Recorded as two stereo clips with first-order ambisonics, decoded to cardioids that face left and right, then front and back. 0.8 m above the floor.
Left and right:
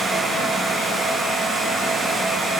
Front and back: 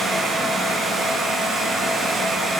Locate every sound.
Only background noise.